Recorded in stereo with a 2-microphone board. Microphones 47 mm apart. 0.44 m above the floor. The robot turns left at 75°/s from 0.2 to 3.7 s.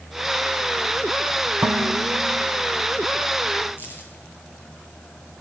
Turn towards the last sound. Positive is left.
turn(degrees=50)  # may be behind; listen again after turning